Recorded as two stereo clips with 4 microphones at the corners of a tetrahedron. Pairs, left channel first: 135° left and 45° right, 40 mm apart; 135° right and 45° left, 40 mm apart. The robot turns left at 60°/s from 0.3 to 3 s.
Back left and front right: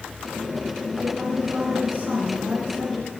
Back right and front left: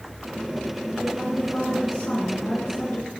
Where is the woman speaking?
35° right, 4.5 m; by 3.1 s 155° right, 4.5 m.